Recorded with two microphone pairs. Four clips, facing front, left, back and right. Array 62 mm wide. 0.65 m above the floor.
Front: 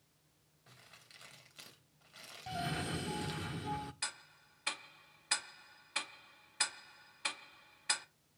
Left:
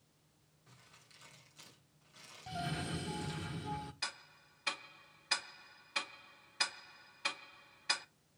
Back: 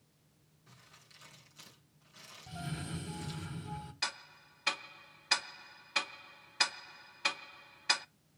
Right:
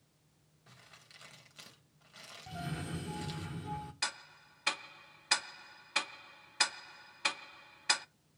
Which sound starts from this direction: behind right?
Ticking, at 4.0 s.